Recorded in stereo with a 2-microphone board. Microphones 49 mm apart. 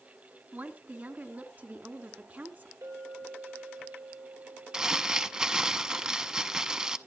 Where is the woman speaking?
40° right (ahead or behind), 2.0 m.